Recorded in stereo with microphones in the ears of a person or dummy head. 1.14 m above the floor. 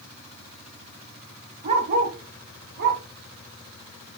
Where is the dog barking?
35° right (ahead or behind), 2.5 m; by 3.0 s 60° right (ahead or behind), 2.5 m.